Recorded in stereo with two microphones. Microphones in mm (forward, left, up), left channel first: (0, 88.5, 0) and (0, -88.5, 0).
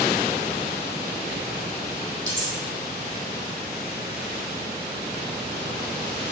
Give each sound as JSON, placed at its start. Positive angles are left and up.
{"t": 2.3, "sound": "cutlery clinking", "side_deg": 80, "distance_m": 4.5}